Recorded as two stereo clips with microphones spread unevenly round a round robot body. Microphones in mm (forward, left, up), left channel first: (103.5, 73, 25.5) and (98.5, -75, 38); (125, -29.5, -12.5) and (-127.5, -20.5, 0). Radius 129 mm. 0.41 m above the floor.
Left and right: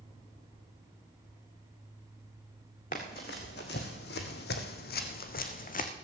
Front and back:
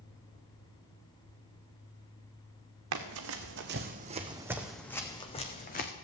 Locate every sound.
2.9 s running footsteps: 150° left, 1.6 m; by 5.9 s 55° left, 1.6 m